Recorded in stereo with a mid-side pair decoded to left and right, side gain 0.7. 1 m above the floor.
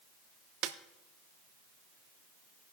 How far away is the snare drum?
About 0.8 m.